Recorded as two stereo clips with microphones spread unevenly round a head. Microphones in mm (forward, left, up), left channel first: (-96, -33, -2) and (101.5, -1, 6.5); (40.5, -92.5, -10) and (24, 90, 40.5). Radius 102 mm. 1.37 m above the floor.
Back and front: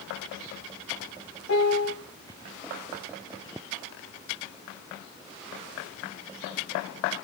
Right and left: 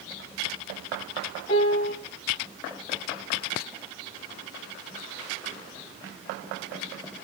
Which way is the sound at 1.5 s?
150° right.